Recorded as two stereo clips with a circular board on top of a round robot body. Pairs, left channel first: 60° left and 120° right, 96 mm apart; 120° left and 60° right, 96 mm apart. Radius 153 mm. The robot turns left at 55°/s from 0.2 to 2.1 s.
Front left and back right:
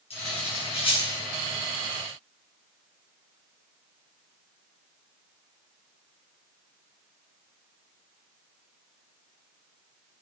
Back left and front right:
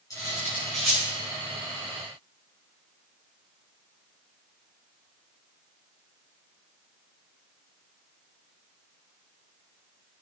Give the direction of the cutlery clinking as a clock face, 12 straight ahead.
10 o'clock.